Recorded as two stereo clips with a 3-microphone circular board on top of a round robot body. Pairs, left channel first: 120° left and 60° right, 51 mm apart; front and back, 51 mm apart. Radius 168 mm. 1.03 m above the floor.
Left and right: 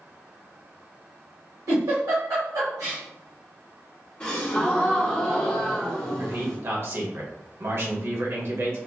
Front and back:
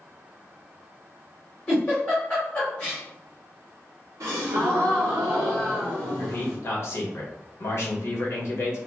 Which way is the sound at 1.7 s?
65° right.